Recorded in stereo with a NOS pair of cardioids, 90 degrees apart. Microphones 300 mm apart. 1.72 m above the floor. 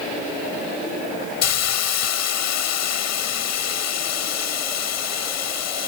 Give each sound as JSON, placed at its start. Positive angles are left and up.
{"t": 1.4, "sound": "a hiss", "azimuth_deg": 60}